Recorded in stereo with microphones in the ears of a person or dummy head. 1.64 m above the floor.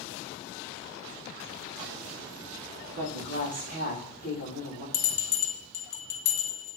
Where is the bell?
60° left (ahead or behind), 0.7 m.